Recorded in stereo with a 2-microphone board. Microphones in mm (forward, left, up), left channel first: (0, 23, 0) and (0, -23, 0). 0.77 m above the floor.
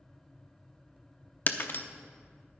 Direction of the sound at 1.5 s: 50° left (ahead or behind).